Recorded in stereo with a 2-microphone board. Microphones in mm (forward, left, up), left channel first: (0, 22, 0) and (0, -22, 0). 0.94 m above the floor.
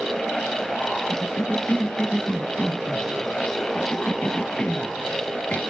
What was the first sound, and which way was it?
A cough, 30° left (ahead or behind).